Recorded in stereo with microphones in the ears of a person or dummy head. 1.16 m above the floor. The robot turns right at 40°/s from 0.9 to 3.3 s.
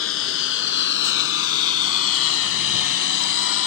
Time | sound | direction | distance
0.0 | a lawn mower | 75° left (ahead or behind) | ?